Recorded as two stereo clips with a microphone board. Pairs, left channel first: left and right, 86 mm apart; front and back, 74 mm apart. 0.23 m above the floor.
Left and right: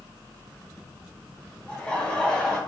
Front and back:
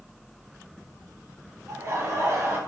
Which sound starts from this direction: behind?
Laughter, at 1.7 s.